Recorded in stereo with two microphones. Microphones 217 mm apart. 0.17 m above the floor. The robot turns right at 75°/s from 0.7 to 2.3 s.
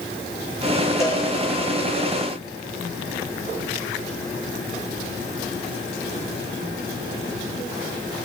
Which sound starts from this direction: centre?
A cowbell, at 1.0 s.